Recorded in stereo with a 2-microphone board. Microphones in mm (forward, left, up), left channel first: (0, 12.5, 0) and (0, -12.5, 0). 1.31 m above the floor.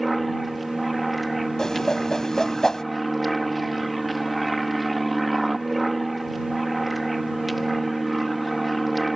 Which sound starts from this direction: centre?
An aircraft, at 0.0 s.